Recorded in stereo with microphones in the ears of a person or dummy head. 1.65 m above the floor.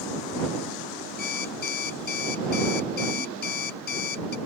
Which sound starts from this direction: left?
An alarm clock, at 1.2 s.